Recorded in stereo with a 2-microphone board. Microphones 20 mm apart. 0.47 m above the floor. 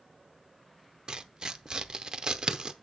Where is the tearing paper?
40° right (ahead or behind), 0.7 m.